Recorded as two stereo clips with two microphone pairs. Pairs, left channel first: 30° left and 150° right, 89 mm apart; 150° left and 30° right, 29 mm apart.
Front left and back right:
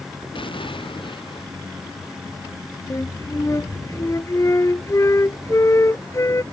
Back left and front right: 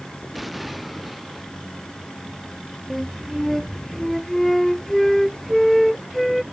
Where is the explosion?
60° left.